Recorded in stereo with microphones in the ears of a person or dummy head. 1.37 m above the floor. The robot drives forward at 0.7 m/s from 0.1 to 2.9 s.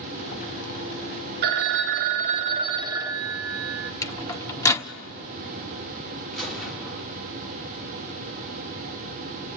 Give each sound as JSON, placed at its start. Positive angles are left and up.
{"t": 1.4, "sound": "a phone ringing", "side_deg": -55, "distance_m": 0.5}
{"t": 4.0, "sound": "a microwave", "side_deg": 15, "distance_m": 0.7}
{"t": 6.3, "sound": "a gunshot", "side_deg": 0, "distance_m": 2.5}